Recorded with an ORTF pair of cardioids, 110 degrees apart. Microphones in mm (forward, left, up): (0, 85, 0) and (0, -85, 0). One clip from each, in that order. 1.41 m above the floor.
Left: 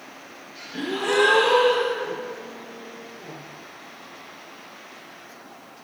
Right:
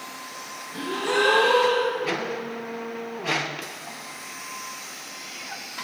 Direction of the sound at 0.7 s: 15° left.